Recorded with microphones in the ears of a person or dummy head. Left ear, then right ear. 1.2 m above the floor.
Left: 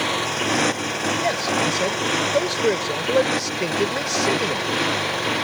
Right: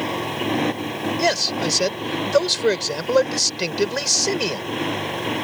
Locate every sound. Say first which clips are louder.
0.0 s a motorcycle: left 3 dB; 35° left (ahead or behind); by 5.5 s 25° left (ahead or behind)
1.2 s a man speaking: right 3 dB; 50° right (ahead or behind)